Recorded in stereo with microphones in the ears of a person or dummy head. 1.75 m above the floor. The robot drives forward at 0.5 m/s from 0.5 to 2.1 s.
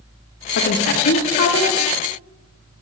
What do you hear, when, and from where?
0.6 s a woman speaking: 65° left (ahead or behind), 1.7 m; by 1.7 s 55° left (ahead or behind), 1.9 m